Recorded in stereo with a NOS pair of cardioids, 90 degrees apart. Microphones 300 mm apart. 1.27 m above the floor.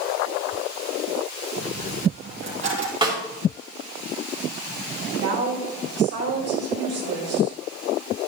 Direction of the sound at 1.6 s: 45° right.